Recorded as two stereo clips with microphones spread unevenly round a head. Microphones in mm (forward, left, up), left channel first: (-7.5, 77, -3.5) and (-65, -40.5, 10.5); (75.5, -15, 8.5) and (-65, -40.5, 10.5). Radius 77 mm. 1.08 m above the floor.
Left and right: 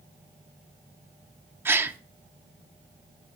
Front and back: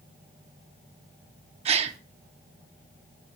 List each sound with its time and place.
1.6 s a gasp: 175° right, 0.7 m